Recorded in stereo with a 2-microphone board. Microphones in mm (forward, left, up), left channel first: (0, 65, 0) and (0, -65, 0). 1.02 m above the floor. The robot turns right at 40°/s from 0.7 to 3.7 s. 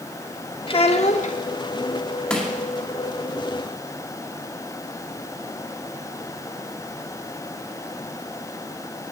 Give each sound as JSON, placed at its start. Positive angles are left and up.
{"t": 0.7, "sound": "a child speaking", "side_deg": 45, "distance_m": 1.1}
{"t": 2.3, "sound": "crushing", "side_deg": 10, "distance_m": 1.9}